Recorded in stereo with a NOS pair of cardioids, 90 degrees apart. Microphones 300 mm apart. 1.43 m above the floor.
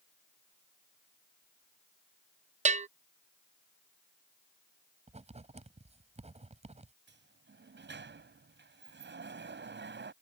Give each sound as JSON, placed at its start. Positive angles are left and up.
{"t": 2.6, "sound": "a bell", "azimuth_deg": -20}
{"t": 5.1, "sound": "writing", "azimuth_deg": -20}
{"t": 7.1, "sound": "a sliding door", "azimuth_deg": -35}